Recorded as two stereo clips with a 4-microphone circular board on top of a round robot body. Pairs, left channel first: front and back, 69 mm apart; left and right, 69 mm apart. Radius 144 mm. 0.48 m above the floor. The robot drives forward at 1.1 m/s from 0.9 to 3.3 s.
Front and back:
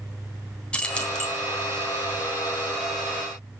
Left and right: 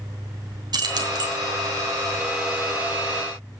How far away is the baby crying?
I don't hear a baby crying.